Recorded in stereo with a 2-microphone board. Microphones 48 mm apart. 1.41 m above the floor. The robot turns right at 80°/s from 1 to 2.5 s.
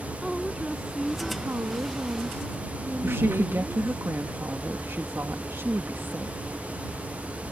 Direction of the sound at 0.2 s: 170° right.